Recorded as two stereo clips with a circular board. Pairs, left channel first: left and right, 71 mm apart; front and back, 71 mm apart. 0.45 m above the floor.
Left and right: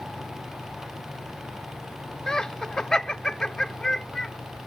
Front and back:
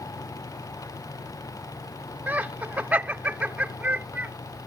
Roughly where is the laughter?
Behind.